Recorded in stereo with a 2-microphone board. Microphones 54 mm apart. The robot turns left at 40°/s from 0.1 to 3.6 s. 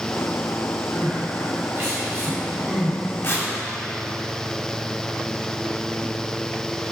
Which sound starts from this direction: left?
Tearing paper, at 3.2 s.